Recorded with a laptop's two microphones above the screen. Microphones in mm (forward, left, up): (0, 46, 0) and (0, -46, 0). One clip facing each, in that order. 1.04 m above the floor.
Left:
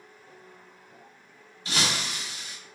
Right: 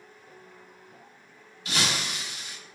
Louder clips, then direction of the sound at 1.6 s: Even; 30° left (ahead or behind).